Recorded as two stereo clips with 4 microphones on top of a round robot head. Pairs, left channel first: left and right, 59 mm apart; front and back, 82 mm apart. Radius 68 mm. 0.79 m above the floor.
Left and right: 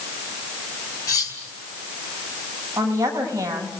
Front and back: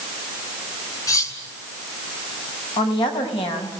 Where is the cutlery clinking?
45° left, 5.5 m.